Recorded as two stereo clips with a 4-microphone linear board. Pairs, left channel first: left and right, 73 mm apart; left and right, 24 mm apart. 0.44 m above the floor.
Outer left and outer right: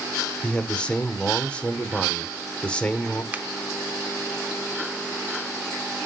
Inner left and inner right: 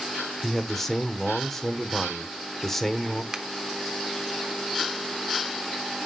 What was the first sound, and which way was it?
A man speaking, 15° left (ahead or behind).